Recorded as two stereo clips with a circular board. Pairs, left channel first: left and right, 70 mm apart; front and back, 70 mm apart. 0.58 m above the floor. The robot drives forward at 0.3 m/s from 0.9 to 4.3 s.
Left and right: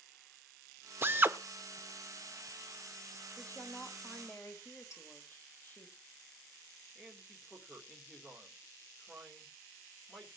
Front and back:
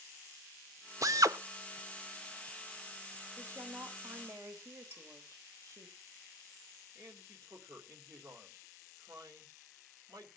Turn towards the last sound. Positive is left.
turn(degrees=175)